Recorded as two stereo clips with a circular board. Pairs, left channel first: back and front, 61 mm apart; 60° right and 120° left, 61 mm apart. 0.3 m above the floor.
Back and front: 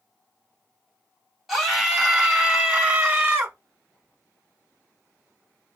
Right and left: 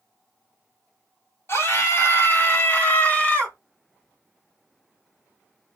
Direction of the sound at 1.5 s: 90° right.